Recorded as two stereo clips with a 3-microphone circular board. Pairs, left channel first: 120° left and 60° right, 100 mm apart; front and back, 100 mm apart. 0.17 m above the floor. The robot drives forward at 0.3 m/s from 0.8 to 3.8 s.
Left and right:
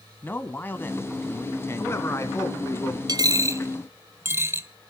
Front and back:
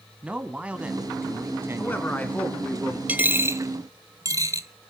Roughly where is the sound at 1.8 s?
Ahead left.